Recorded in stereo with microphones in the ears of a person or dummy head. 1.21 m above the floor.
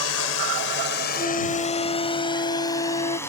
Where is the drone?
80° left; by 3.3 s 10° left (ahead or behind).